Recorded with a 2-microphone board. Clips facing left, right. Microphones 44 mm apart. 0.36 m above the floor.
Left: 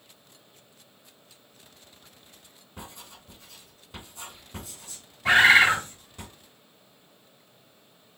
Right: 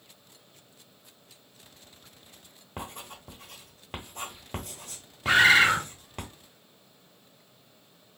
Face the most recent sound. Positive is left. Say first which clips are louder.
# left 2 dB
turn(degrees=55)  # may be behind; listen again after turning